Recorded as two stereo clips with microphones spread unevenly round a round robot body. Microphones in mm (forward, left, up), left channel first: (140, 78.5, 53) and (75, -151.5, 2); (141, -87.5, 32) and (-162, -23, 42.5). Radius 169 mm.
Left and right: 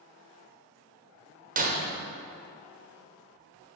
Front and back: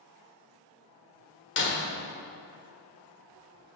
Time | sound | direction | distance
1.6 | breaking glass | 60° right | 1.0 m